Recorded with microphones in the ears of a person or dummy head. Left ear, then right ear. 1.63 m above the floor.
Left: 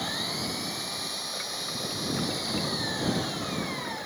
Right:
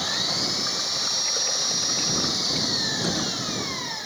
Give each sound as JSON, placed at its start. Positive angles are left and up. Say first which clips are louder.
{"t": 0.0, "sound": "an engine running", "louder": "right 6 dB", "side_deg": -5}